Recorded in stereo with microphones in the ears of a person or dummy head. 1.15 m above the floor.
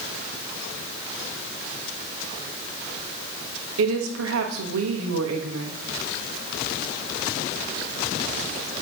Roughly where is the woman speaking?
Right.